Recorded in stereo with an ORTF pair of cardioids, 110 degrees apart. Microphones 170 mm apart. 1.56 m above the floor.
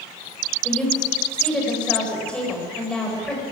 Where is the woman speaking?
5° left, 8.5 m.